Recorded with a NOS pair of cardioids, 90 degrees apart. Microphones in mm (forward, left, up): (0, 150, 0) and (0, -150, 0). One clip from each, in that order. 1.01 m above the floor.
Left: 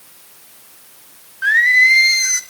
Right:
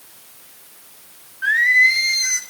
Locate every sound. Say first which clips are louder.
1.4 s singing: left 3 dB; 15° left, 0.7 m